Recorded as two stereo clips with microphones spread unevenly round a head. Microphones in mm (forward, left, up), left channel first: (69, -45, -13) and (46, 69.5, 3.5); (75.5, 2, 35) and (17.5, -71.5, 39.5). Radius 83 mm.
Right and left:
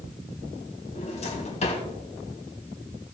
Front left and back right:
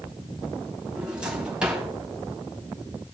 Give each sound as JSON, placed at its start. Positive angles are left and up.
{"t": 0.9, "sound": "a drawer", "azimuth_deg": -50, "distance_m": 3.0}